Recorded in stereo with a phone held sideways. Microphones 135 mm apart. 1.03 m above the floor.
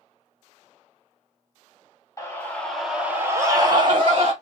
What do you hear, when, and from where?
2.2 s a scream: 20° left (ahead or behind), 1.5 m; by 4.3 s 45° right (ahead or behind), 1.9 m